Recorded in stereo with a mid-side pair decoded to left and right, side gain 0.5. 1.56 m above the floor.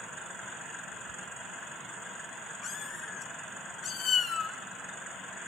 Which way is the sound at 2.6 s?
65° left.